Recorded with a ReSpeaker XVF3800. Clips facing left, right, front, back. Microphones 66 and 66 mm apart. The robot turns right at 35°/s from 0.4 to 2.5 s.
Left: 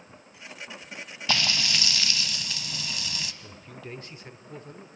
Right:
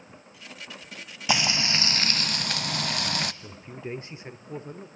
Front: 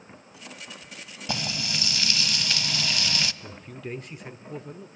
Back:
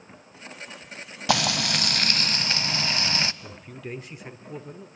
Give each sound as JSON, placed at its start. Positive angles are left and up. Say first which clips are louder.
{"t": 1.3, "sound": "frying", "louder": "right 2 dB, back 8 dB", "azimuth_deg": -160, "distance_m": 0.5}
{"t": 3.4, "sound": "a man speaking", "louder": "right 4 dB, even", "azimuth_deg": -100, "distance_m": 0.8}